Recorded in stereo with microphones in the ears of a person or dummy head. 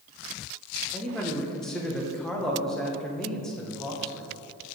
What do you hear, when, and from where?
0.9 s a man speaking: centre (ahead or behind), 0.9 m